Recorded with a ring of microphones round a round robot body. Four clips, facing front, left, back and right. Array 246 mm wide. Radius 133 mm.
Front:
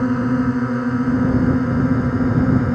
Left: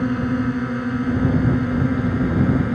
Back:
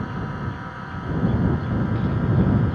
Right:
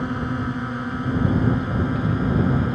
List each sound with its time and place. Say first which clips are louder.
0.0 s a drone: left 5 dB, front 13 dB; 20° left